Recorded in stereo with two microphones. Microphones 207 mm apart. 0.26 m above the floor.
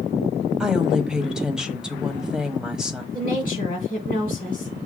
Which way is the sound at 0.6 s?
5° right (ahead or behind).